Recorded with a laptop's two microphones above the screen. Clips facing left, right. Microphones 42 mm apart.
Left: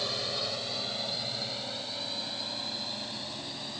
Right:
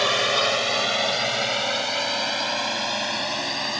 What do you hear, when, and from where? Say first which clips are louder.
0.0 s a drone: right 13 dB; 65° right (ahead or behind); by 3.8 s 80° right